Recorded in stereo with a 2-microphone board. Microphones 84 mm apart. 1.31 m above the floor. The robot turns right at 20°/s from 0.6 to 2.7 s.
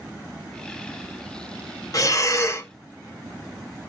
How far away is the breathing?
About 0.6 m.